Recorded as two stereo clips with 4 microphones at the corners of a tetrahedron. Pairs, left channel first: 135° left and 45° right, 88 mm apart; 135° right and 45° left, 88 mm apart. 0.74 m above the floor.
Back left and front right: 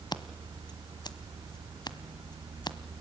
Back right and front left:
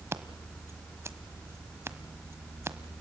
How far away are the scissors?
About 1.3 m.